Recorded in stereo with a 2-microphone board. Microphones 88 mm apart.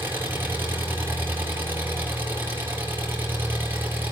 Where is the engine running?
25° right (ahead or behind), 5 m.